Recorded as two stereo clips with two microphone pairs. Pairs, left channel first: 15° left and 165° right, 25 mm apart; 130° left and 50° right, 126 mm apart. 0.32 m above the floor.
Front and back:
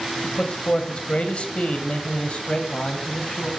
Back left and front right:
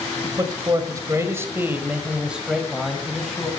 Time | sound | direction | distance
0.2 | a man speaking | 20° right | 1.9 m